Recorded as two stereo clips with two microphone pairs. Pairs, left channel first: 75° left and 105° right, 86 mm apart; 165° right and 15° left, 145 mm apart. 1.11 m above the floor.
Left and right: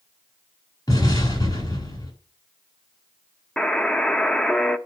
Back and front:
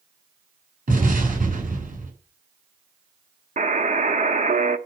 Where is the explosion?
30° left, 8 m.